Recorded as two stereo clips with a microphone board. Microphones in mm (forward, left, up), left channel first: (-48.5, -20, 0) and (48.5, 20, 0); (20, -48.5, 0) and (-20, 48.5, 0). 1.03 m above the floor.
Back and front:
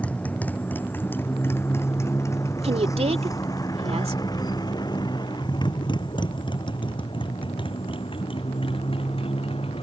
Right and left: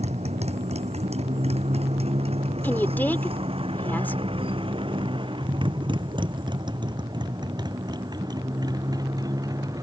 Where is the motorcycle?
125° left; by 9.8 s 170° left.